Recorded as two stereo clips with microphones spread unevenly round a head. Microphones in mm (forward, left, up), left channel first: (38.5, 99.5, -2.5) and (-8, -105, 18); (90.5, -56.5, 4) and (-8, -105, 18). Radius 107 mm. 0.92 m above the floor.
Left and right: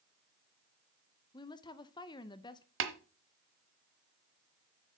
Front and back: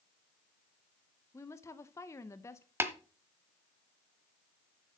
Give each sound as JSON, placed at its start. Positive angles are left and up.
{"t": 1.3, "sound": "a woman speaking", "azimuth_deg": 40, "distance_m": 0.6}
{"t": 2.8, "sound": "tapping", "azimuth_deg": -90, "distance_m": 1.2}